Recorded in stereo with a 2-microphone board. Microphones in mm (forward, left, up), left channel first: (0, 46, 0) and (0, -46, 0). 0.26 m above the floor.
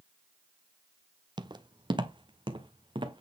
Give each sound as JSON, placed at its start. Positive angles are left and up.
{"t": 1.4, "sound": "footsteps", "side_deg": -55, "distance_m": 0.7}